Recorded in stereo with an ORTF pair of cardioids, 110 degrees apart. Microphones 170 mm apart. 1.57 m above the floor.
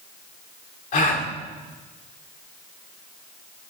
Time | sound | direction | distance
0.9 | a gasp | 55° left | 2.5 m